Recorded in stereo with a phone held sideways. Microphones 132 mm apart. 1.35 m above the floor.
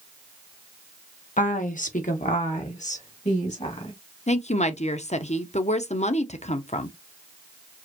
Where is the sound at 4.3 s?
60° left (ahead or behind), 0.7 m.